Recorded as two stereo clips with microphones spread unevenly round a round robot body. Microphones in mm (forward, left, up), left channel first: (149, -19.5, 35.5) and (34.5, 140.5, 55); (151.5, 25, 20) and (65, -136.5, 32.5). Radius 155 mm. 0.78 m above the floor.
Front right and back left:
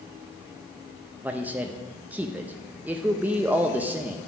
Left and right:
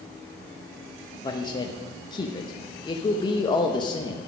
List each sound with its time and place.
1.2 s a man speaking: 40° left, 0.7 m